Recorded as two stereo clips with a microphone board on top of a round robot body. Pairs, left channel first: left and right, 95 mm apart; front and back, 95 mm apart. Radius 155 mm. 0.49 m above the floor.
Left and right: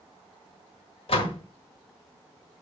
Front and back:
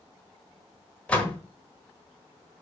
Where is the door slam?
80° left, 1.7 m.